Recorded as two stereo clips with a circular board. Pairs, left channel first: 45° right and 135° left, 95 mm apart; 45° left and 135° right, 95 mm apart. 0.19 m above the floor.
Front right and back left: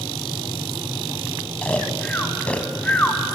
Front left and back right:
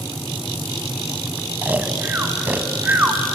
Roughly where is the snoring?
Right.